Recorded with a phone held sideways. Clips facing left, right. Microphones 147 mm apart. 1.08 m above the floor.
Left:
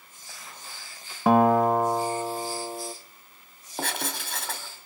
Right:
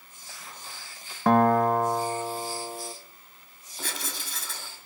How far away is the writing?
About 3 m.